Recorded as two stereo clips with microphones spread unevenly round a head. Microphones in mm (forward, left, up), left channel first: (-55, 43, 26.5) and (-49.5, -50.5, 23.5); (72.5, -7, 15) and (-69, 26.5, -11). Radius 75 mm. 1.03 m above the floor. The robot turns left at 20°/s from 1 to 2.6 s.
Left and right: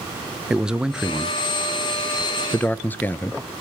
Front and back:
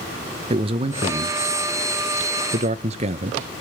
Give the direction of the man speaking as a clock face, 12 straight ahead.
5 o'clock.